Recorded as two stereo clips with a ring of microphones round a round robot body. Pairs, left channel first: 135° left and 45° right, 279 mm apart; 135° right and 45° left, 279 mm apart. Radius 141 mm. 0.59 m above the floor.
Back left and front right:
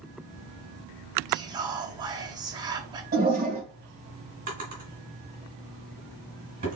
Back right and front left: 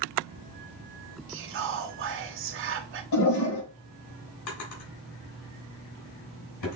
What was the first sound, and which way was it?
Whispering, 25° left.